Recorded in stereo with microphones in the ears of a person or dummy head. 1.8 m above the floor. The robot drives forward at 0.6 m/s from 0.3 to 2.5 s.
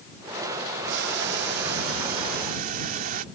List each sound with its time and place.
0.9 s boiling: 55° right (ahead or behind); by 3.2 s 45° right (ahead or behind)